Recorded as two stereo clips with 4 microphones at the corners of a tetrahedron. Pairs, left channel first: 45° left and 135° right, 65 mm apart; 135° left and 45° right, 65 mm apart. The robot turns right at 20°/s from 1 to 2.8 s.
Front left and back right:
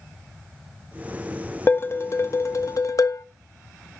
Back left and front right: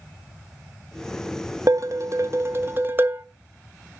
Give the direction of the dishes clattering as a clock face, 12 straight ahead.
12 o'clock.